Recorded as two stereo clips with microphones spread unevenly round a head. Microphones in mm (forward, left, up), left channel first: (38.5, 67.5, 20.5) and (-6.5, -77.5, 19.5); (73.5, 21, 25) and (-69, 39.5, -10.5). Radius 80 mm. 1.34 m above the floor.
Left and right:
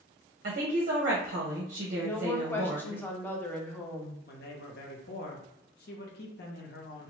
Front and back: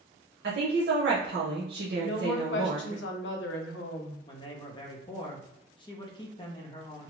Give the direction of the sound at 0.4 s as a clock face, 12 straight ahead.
5 o'clock.